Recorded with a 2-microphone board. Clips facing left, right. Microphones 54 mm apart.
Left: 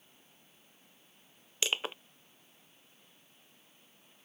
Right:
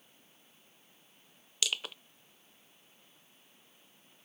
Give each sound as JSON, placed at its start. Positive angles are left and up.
{"t": 1.6, "sound": "crushing", "side_deg": 35}